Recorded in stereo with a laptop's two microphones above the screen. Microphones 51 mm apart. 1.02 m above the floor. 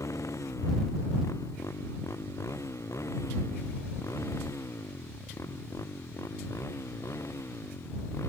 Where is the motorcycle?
80° left; by 8.3 s 65° left (ahead or behind).